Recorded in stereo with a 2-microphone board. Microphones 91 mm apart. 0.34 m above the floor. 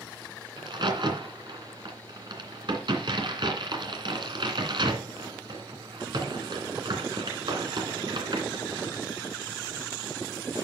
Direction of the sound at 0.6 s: 60° right (ahead or behind).